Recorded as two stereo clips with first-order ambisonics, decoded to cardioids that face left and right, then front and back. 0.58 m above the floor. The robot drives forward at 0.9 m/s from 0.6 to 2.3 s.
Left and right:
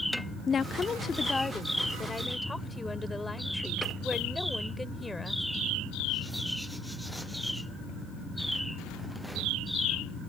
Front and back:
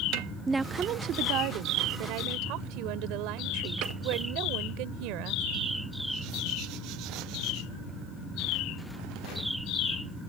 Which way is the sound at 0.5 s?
115° left.